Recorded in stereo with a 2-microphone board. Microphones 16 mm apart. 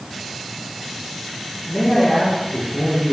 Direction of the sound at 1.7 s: 40° left (ahead or behind).